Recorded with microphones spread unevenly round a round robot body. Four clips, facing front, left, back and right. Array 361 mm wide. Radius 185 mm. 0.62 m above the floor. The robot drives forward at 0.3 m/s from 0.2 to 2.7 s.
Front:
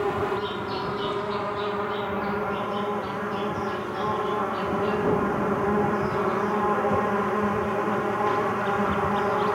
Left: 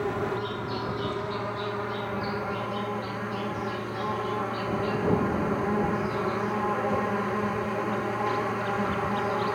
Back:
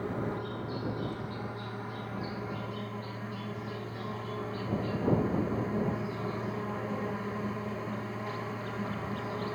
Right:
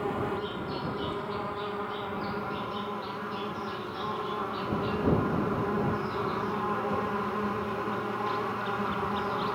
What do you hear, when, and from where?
0.0 s an insect: 10° left, 1.5 m; by 9.6 s 20° left, 0.9 m